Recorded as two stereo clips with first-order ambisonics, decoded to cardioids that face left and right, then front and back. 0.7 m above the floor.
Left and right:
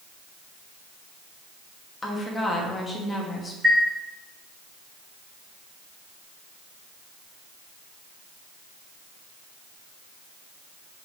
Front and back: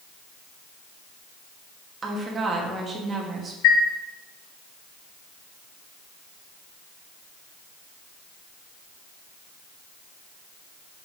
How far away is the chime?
About 3.5 m.